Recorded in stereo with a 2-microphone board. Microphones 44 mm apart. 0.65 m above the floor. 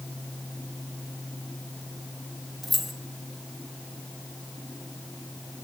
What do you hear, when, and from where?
2.6 s keys jangling: centre (ahead or behind), 1.1 m